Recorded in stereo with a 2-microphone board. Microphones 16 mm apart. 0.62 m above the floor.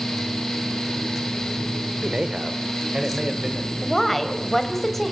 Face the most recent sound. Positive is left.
turn(degrees=5)  # may be behind; listen again after turning